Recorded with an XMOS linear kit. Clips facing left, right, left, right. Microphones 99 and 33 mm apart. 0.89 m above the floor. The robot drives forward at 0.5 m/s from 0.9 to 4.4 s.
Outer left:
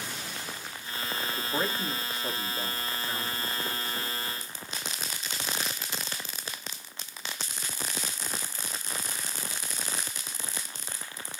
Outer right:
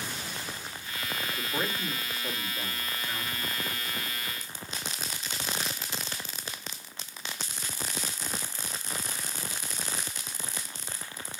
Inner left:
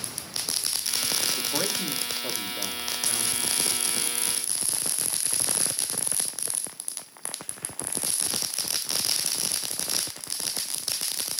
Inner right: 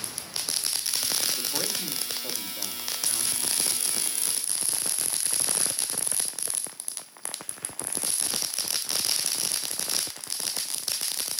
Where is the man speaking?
25° left (ahead or behind), 1.5 m; by 4.2 s 15° left (ahead or behind), 3 m.